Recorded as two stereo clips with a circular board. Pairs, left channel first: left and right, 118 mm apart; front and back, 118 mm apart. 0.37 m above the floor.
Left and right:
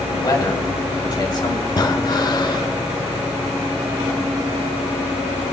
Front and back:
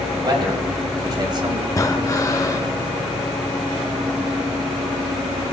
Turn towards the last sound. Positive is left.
turn(degrees=50)